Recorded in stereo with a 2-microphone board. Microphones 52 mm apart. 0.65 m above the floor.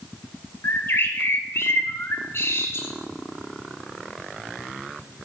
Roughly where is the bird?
Left.